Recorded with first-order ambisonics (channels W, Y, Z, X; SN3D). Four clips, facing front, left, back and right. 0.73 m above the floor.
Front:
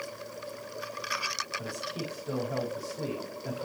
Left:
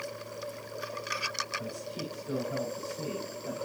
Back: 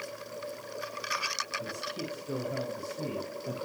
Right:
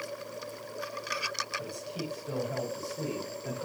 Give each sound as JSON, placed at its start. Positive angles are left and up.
{"t": 1.6, "sound": "a man speaking", "azimuth_deg": -20, "distance_m": 5.5}